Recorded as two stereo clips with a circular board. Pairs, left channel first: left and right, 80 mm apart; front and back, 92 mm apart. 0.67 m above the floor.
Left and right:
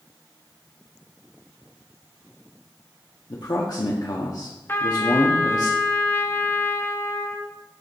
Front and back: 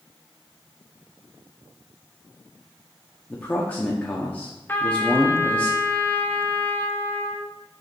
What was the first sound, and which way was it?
A man speaking, 70° left.